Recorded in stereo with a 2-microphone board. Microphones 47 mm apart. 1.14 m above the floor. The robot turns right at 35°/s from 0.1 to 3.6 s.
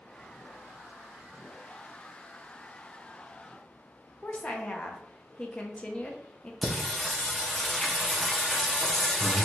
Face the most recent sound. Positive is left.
turn(degrees=5)  # may be behind; listen again after turning